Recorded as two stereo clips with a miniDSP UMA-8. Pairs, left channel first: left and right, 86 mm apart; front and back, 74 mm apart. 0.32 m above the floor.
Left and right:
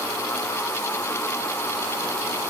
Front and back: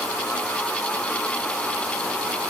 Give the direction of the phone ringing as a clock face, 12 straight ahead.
I don't hear a phone ringing.